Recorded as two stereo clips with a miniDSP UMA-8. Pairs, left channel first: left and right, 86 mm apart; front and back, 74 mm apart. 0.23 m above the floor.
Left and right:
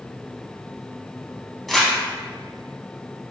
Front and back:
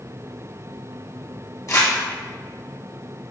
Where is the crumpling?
5° left, 1.0 m.